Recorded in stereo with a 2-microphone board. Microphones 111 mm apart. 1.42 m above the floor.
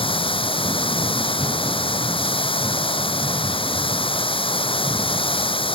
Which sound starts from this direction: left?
Running water, at 0.0 s.